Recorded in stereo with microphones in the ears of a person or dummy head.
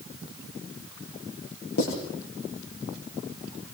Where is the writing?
60° left (ahead or behind), 8.5 m.